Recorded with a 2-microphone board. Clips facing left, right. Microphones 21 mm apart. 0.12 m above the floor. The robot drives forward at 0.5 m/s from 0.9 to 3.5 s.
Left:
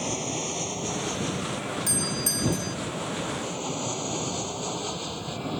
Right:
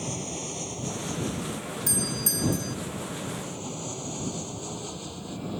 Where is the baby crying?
No baby crying in this recording.